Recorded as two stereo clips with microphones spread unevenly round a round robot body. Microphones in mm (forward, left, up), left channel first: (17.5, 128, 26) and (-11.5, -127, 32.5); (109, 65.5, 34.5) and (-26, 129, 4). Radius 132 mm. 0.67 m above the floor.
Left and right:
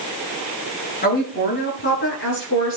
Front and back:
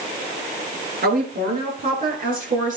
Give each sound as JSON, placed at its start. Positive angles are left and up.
{"t": 1.0, "sound": "a woman speaking", "azimuth_deg": 140, "distance_m": 9.0}